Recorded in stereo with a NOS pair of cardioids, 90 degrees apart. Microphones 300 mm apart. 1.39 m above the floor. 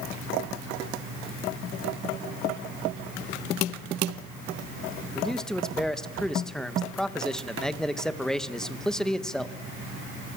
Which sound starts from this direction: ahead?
A man speaking, at 5.2 s.